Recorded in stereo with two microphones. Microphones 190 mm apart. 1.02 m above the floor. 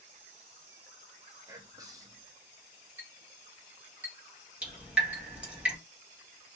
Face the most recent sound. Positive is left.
turn(degrees=-5)  # may be behind; listen again after turning